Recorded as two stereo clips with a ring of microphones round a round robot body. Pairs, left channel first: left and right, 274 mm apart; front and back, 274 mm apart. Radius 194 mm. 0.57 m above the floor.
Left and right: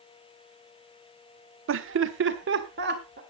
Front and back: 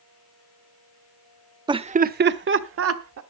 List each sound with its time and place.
1.7 s laughter: 110° right, 0.9 m; by 3.2 s 150° right, 1.6 m